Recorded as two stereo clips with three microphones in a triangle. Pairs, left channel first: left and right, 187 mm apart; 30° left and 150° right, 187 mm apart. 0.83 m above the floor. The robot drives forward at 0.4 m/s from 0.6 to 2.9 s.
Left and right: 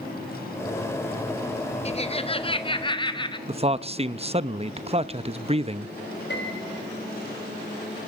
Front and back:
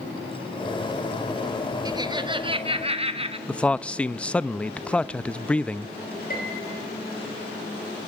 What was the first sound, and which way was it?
Laughter, 145° left.